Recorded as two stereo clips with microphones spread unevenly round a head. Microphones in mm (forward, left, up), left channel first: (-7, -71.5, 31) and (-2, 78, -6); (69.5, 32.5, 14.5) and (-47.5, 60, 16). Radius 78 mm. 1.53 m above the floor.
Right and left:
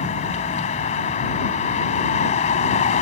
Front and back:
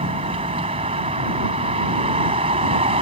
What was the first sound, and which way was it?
A vehicle, 135° right.